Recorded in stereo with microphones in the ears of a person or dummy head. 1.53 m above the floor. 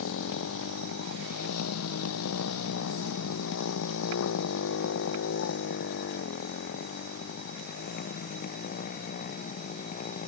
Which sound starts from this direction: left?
A motorcycle, at 0.0 s.